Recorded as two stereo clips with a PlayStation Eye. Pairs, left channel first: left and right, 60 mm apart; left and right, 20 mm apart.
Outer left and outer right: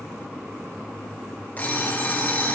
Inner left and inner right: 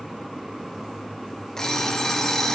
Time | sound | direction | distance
1.6 | an alarm clock | 30° left (ahead or behind) | 1.2 m